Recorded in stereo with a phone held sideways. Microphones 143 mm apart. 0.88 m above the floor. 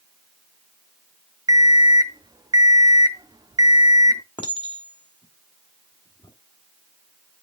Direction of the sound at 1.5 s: 25° right (ahead or behind).